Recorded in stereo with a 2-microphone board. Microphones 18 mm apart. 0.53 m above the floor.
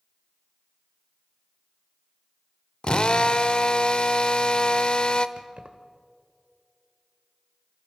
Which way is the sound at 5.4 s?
65° right (ahead or behind).